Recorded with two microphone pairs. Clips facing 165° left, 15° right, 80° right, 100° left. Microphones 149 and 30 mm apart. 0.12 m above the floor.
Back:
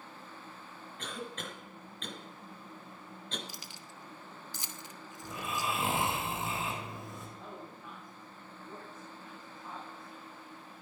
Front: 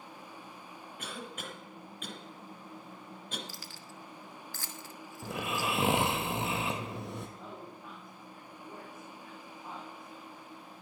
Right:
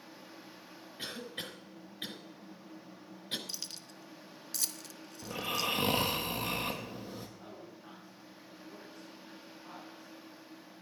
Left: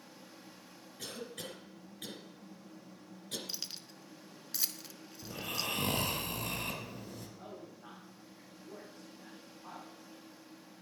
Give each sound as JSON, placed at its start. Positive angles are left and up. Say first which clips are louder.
{"t": 1.0, "sound": "a cough", "louder": "back 2 dB, right 2 dB", "azimuth_deg": -85, "distance_m": 1.7}
{"t": 3.5, "sound": "keys jangling", "louder": "front 1 dB, even", "azimuth_deg": 145, "distance_m": 0.7}
{"t": 5.2, "sound": "snoring", "louder": "front 2 dB, right 4 dB", "azimuth_deg": -20, "distance_m": 1.6}
{"t": 7.4, "sound": "a man speaking", "louder": "front 1 dB, left 1 dB", "azimuth_deg": 50, "distance_m": 4.5}